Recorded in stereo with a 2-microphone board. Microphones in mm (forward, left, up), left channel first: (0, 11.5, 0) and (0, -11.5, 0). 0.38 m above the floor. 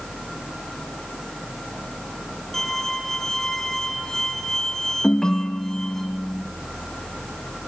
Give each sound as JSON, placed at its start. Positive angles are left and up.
{"t": 2.5, "sound": "a violin", "side_deg": 15, "distance_m": 3.5}
{"t": 5.0, "sound": "a ringtone", "side_deg": 35, "distance_m": 0.7}